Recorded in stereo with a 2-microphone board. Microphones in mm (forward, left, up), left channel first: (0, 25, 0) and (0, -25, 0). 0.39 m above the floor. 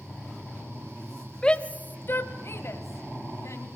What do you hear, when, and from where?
1.4 s a shout: 15° left (ahead or behind), 1.6 m; by 3.7 s 75° left (ahead or behind), 3 m